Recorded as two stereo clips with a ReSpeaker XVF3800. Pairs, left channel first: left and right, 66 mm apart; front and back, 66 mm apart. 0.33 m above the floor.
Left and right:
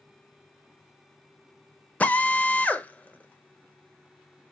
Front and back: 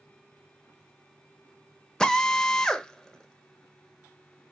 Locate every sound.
2.0 s a drill: 65° left, 0.6 m